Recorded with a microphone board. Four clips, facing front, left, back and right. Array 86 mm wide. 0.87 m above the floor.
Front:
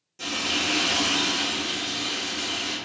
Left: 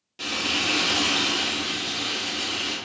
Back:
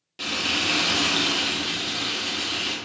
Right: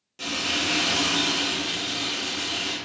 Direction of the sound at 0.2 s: 170° left.